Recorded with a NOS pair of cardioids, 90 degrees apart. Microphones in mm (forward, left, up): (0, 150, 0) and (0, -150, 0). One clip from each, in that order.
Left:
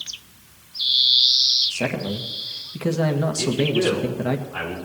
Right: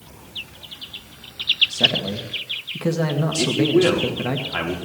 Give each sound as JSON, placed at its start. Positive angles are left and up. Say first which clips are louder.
{"t": 1.7, "sound": "a man speaking", "louder": "right 6 dB", "azimuth_deg": 0, "distance_m": 2.0}
{"t": 3.4, "sound": "a man speaking", "louder": "right 6 dB", "azimuth_deg": -60, "distance_m": 4.5}